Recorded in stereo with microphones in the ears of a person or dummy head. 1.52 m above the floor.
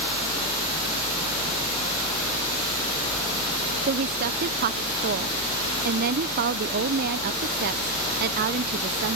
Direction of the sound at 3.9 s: 45° right (ahead or behind).